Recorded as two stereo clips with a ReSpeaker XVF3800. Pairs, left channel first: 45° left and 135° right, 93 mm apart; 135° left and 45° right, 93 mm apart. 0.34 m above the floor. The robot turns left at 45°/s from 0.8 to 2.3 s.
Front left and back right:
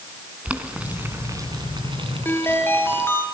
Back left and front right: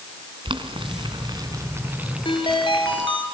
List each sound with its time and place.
0.5 s boiling: 60° right, 3 m; by 3.1 s 125° right, 3 m
2.2 s a ringtone: 115° left, 4.5 m; by 3.2 s 110° left, 4.5 m